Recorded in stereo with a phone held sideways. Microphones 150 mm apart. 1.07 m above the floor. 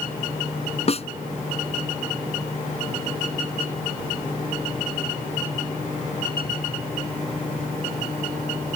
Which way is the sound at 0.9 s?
45° left (ahead or behind).